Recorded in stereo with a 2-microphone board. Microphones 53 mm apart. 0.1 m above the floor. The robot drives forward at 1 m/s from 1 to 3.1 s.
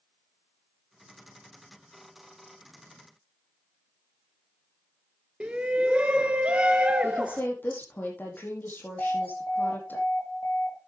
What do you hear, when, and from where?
5.4 s a shout: 20° right (ahead or behind), 1.1 m
7.0 s a woman speaking: 40° left (ahead or behind), 5 m
9.0 s an alarm: 60° left (ahead or behind), 4 m